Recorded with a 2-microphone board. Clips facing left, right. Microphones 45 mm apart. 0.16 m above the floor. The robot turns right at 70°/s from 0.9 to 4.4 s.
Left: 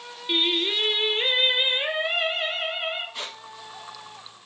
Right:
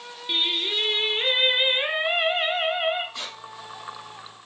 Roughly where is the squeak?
Centre.